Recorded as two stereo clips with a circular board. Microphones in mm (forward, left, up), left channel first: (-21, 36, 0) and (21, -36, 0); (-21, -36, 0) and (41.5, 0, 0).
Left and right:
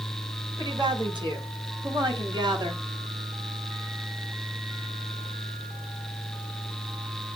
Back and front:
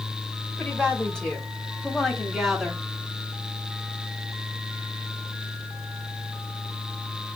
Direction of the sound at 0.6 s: 80° right.